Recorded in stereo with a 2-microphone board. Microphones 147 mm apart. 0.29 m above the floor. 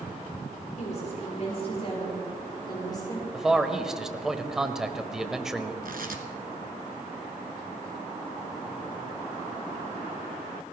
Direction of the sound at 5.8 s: 75° right (ahead or behind).